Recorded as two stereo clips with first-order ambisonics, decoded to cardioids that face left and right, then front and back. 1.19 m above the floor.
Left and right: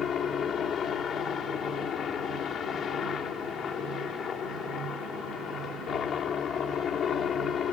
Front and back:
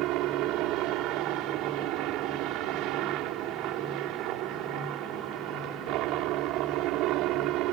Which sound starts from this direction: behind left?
A helicopter, at 0.0 s.